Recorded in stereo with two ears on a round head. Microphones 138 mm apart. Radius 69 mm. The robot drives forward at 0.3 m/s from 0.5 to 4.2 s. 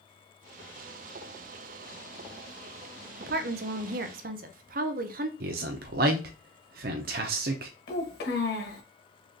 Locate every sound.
3.2 s a woman speaking: 65° right (ahead or behind), 0.6 m; by 5.3 s 60° right (ahead or behind), 0.6 m
5.4 s a man speaking: 60° right (ahead or behind), 0.5 m
7.9 s a child speaking: 65° left (ahead or behind), 1.2 m